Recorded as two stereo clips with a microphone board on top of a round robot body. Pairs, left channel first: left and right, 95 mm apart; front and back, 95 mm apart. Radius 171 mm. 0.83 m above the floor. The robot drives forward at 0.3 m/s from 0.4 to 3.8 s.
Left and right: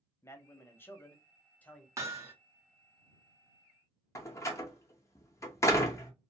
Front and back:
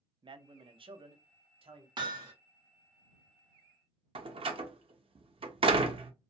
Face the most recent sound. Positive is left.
turn(degrees=150)